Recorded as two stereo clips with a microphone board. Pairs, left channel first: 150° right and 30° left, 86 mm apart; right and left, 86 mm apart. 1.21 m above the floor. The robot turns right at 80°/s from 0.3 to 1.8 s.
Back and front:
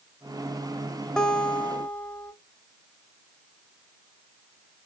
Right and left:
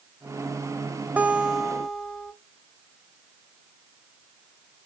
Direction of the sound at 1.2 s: 135° left.